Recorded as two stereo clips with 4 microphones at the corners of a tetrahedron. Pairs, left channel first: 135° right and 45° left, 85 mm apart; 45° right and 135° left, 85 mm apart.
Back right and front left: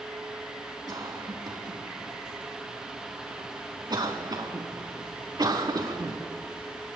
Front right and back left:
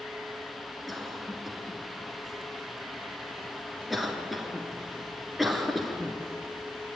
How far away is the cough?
About 1.9 m.